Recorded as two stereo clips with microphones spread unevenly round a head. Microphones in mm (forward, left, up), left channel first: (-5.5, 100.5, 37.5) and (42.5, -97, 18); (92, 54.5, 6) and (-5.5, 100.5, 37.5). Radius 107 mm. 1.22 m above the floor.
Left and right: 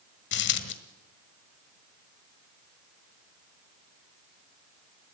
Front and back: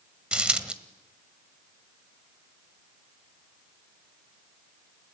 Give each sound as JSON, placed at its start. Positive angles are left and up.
{"t": 0.3, "sound": "a dropped coin", "azimuth_deg": 90, "distance_m": 1.6}